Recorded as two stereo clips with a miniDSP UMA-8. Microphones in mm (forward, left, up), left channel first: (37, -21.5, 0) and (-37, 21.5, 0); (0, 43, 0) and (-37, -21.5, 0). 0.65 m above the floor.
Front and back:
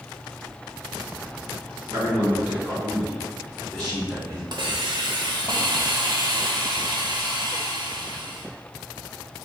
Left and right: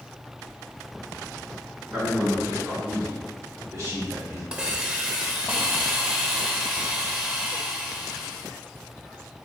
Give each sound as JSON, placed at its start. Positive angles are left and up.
{"t": 1.9, "sound": "a man speaking", "azimuth_deg": -155, "distance_m": 1.6}
{"t": 4.5, "sound": "a hiss", "azimuth_deg": 170, "distance_m": 0.5}